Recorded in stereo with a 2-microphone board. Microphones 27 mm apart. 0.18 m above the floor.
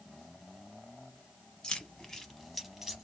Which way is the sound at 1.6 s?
30° left (ahead or behind).